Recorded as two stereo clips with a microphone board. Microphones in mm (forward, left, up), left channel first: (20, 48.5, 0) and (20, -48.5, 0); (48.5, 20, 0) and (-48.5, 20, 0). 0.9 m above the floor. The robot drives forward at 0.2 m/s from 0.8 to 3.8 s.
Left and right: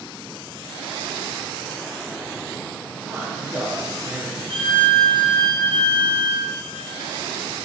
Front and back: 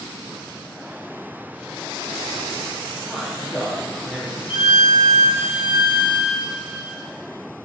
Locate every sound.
3.1 s a man speaking: 90° right, 0.7 m; by 4.4 s 120° right, 0.7 m
4.5 s a violin: 120° right, 1.1 m